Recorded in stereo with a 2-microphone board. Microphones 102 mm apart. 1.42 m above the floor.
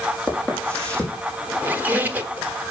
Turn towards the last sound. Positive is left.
turn(degrees=-20)  # may be behind; listen again after turning